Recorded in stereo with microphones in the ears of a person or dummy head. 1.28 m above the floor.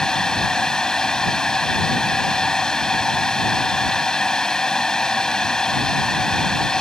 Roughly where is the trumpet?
No trumpet in this recording.